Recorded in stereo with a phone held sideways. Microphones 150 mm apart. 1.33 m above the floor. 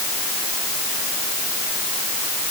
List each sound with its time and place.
Only background noise.